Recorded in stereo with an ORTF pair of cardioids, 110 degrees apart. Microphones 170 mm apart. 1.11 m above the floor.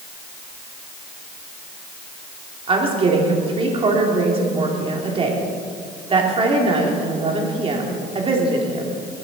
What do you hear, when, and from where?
2.7 s a woman speaking: 35° right, 2.5 m